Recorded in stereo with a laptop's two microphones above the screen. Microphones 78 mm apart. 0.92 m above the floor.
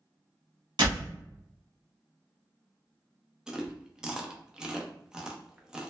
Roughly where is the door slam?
Right.